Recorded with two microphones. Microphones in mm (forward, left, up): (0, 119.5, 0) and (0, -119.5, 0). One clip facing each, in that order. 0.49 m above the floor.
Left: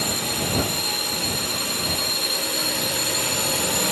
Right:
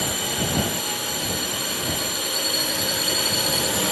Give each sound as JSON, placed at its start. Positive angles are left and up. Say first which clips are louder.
{"t": 0.0, "sound": "a drone", "louder": "even", "side_deg": 0}